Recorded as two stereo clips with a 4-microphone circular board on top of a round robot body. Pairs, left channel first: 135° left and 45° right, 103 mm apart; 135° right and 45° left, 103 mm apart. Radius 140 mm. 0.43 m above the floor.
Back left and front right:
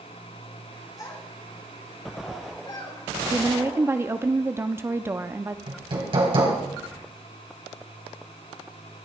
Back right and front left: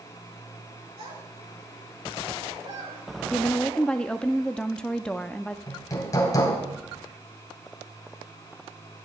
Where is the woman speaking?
65° right, 0.7 m.